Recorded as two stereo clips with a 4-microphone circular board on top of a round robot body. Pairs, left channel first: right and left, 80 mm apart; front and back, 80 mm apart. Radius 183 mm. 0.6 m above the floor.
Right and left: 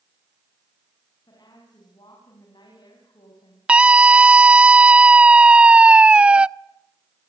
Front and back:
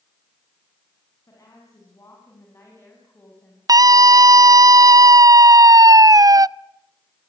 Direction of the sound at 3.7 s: 165° left.